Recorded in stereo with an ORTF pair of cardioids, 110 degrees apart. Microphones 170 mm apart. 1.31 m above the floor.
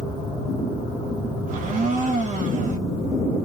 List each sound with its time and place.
1.5 s a blender: 50° right, 1.0 m